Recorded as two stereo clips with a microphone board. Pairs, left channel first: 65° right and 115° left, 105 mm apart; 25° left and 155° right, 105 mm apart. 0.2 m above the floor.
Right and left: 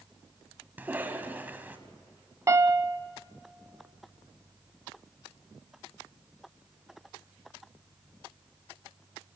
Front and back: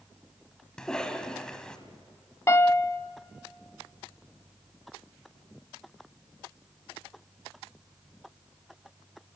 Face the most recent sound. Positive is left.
turn(degrees=70)